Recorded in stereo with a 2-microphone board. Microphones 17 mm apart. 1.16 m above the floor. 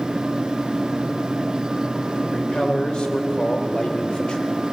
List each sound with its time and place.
2.2 s a man speaking: 75° left (ahead or behind), 4 m; by 4.5 s 60° left (ahead or behind), 3.5 m